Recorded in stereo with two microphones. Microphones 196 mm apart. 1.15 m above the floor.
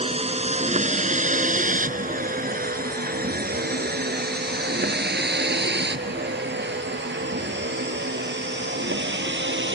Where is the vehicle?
30° right (ahead or behind); by 9.8 s 80° right.